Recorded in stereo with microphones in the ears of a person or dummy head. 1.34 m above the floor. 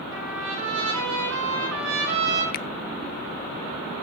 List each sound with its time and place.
0.1 s a trumpet: 75° right (ahead or behind), 9 m
2.5 s a finger snap: 50° left (ahead or behind), 0.6 m